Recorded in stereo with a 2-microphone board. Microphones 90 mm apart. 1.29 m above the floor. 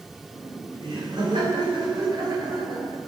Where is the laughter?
60° right (ahead or behind), 5 m; by 3.0 s 45° right (ahead or behind), 6 m.